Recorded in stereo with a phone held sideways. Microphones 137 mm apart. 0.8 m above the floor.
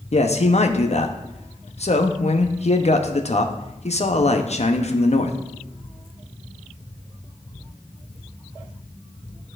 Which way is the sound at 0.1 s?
55° left (ahead or behind).